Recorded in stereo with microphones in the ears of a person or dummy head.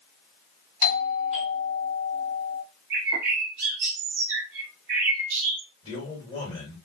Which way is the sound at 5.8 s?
35° left (ahead or behind).